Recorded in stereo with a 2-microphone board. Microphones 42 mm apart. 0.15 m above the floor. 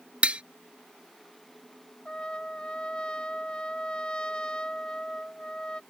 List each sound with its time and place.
0.2 s tapping: 30° right (ahead or behind)
2.0 s a trumpet: 20° left (ahead or behind)